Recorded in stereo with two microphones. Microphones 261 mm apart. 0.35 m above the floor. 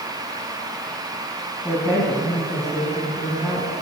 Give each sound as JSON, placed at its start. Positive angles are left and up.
{"t": 1.6, "sound": "a woman speaking", "side_deg": 0, "distance_m": 2.5}